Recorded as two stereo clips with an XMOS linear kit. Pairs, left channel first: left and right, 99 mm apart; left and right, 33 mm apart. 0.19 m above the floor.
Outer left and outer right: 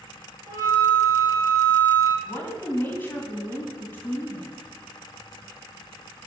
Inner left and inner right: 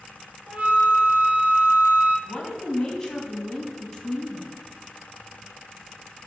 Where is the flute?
40° right (ahead or behind), 1.4 m.